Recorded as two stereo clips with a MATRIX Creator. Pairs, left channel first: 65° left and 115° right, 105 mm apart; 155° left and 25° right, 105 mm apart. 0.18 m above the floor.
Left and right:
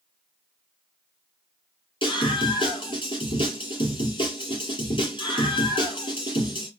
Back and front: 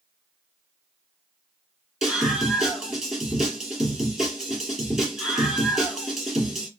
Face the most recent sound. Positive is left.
turn(degrees=60)